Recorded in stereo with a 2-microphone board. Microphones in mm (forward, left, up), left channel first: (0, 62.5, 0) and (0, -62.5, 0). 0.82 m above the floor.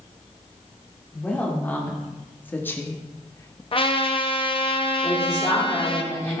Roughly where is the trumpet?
Left.